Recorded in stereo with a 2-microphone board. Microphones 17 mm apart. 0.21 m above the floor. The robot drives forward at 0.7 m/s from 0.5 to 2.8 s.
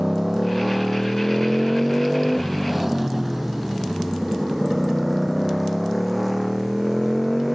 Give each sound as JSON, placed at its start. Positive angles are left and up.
{"t": 0.0, "sound": "a motorcycle", "side_deg": -15}